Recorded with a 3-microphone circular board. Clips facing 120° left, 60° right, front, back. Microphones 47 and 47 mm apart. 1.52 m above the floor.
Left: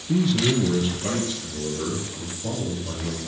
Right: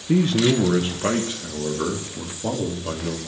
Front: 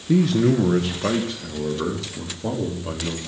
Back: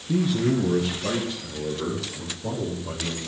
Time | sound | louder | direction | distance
0.1 | a man speaking | right 3 dB, front 5 dB | 15° right | 1.1 m